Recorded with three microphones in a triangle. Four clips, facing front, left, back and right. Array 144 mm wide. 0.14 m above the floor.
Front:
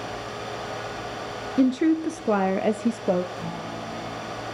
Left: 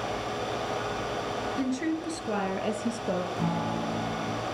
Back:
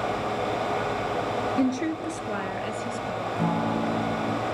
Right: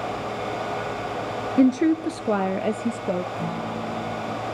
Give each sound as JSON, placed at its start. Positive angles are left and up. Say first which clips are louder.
{"t": 1.6, "sound": "a woman speaking", "louder": "right 14 dB, front 9 dB", "azimuth_deg": -75, "distance_m": 2.5}
{"t": 3.4, "sound": "a guitar", "louder": "right 1 dB, back 8 dB", "azimuth_deg": 180, "distance_m": 6.0}